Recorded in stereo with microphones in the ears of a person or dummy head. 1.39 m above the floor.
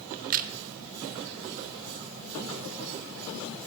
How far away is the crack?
About 0.8 m.